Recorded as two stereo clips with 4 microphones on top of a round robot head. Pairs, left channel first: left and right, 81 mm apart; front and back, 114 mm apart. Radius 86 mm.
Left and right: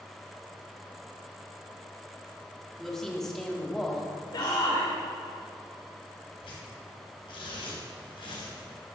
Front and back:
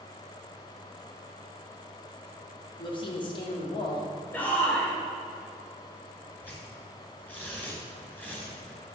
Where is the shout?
75° left, 2 m.